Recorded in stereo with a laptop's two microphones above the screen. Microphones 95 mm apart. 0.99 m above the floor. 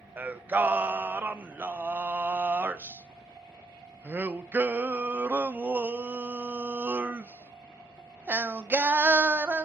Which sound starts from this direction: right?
Singing, at 0.2 s.